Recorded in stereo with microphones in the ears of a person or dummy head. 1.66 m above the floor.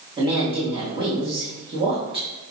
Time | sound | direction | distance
0.2 | a woman speaking | 25° right (ahead or behind) | 3 m